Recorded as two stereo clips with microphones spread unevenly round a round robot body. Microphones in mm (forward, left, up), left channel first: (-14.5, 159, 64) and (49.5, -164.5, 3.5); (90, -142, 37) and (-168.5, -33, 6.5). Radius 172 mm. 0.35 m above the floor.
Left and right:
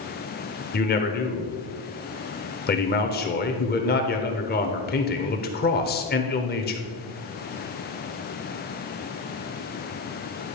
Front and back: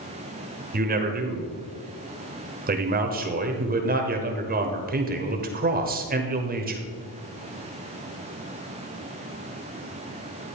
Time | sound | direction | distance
0.7 | a man speaking | 160° left | 1.1 m